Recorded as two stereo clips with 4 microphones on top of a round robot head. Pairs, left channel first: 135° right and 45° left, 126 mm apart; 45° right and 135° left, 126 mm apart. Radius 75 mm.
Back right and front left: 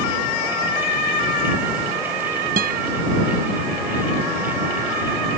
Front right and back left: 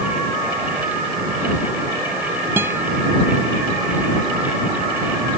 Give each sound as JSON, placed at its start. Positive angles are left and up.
{"t": 2.6, "sound": "a guitar", "azimuth_deg": 60}